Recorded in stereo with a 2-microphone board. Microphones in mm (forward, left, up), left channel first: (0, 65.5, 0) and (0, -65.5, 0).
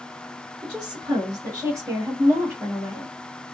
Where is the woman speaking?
40° right (ahead or behind), 2 m; by 3.1 s centre (ahead or behind), 1.6 m.